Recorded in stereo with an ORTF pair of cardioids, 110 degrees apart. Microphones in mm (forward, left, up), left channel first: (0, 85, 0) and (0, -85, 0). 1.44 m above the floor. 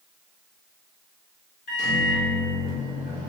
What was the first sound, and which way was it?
A microwave, 70° left.